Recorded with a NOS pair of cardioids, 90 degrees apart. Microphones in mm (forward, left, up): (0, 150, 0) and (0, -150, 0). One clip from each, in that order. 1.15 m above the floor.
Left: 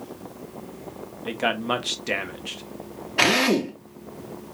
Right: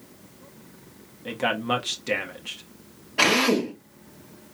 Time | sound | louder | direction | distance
1.2 | a man speaking | left 1 dB | 10° left | 1.2 m
3.2 | a drill | left 1 dB | 20° left | 1.8 m